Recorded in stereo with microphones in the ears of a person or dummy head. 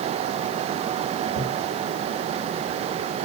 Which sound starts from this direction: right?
A thud, at 1.3 s.